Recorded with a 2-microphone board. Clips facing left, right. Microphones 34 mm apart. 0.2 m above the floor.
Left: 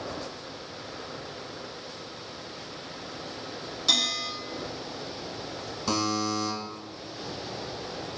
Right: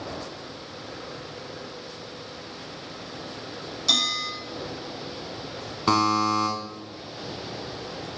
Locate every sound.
3.9 s a bell: 10° left (ahead or behind), 2.0 m
5.9 s a buzzer: 50° right (ahead or behind), 0.8 m